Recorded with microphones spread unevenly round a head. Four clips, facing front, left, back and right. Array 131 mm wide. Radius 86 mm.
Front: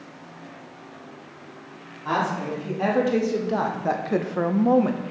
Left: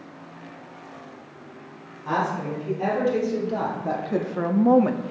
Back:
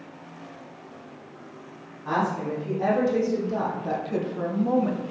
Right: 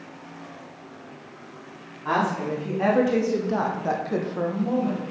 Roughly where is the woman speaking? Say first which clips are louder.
Right 1 dB, front 1 dB; ahead right.